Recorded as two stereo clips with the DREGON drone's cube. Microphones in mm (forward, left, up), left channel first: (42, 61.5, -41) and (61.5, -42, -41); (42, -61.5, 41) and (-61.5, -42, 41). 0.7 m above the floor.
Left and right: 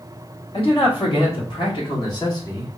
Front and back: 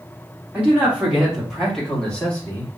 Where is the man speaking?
95° left, 2 m; by 2.7 s 50° left, 1.4 m.